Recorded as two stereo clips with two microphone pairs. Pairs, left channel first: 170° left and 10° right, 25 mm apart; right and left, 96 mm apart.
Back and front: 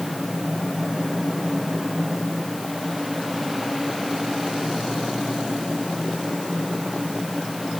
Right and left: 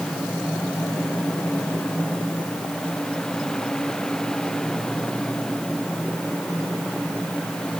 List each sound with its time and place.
Only background noise.